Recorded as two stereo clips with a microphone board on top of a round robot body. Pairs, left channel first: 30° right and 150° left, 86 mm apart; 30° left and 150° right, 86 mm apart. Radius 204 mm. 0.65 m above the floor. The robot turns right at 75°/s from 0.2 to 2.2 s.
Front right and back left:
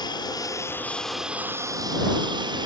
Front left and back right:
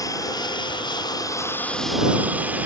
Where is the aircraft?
10° right; by 2.7 s 140° left.